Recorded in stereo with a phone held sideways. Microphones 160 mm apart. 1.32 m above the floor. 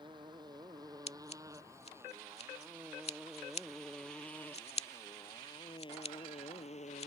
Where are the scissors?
40° left (ahead or behind).